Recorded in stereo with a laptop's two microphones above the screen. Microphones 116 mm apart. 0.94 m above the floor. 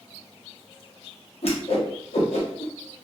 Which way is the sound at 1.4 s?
60° left (ahead or behind).